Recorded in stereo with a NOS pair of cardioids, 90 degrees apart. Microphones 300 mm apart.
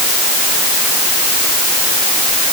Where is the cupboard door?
I don't hear a cupboard door.